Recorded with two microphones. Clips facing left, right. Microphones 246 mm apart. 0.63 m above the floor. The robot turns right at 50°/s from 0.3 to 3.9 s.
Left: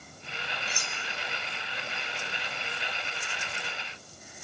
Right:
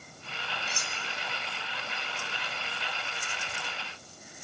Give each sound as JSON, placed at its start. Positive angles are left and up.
{"t": 0.7, "sound": "cutlery clinking", "side_deg": -30, "distance_m": 2.0}